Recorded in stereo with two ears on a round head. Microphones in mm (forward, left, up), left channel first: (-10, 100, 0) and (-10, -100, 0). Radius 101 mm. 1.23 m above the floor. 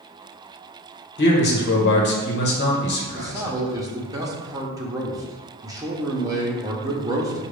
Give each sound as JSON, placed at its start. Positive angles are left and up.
{"t": 1.2, "sound": "a man speaking", "side_deg": 50, "distance_m": 1.0}
{"t": 3.1, "sound": "a man speaking", "side_deg": -15, "distance_m": 0.7}